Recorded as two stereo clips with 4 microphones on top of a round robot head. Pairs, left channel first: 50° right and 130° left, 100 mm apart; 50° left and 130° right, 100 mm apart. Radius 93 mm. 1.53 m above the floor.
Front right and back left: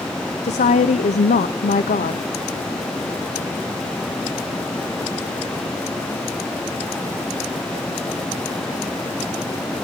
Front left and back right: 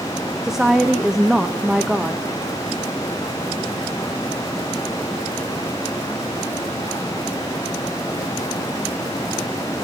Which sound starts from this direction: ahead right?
A woman speaking, at 0.4 s.